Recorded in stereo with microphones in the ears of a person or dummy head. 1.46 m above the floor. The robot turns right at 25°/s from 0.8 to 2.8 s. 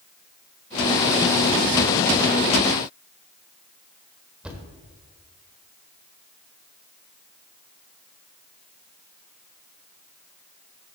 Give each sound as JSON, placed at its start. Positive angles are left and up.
{"t": 4.4, "sound": "a thud", "side_deg": -5, "distance_m": 1.4}